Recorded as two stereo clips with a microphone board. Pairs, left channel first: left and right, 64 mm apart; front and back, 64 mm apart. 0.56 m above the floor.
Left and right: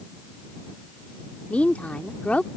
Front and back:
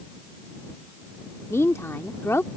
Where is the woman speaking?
30° left.